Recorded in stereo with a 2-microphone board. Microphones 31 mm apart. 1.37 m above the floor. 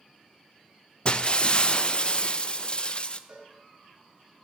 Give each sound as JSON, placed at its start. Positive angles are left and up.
{"t": 1.1, "sound": "breaking glass", "side_deg": 35, "distance_m": 0.6}
{"t": 3.3, "sound": "a cowbell", "side_deg": -20, "distance_m": 3.0}